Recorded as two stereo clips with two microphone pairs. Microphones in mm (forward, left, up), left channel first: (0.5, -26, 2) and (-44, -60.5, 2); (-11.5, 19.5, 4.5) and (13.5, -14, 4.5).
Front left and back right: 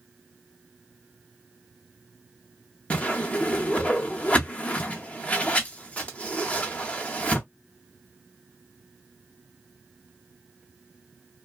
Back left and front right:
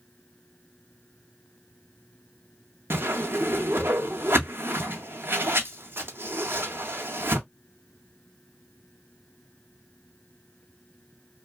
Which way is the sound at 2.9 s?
30° right.